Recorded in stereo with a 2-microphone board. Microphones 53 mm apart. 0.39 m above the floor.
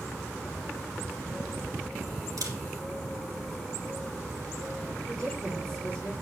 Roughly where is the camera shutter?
Right.